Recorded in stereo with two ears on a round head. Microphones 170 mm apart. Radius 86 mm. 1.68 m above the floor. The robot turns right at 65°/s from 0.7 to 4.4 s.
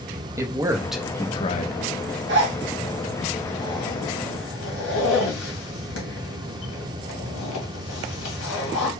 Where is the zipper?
65° right (ahead or behind), 2 m; by 8.9 s 70° left (ahead or behind), 2 m.